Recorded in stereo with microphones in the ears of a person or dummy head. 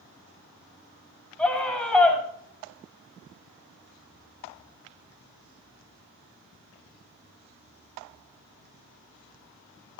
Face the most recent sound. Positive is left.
turn(degrees=10)  # may be behind; listen again after turning